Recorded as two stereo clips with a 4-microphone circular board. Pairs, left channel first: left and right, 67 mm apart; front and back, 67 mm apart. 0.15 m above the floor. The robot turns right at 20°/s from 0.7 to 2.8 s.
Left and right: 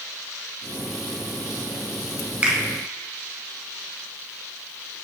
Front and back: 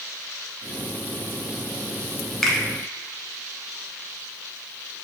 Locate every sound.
2.4 s a finger snap: 75° right, 0.8 m; by 2.6 s 70° right, 0.8 m